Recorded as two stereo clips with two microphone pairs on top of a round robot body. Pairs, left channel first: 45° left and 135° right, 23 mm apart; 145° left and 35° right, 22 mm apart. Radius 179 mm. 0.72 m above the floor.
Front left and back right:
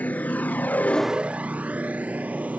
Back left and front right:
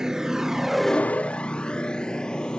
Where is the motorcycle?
25° left; by 2.6 s 165° right.